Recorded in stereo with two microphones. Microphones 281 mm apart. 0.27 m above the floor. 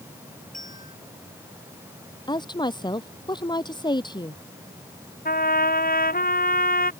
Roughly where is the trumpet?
Left.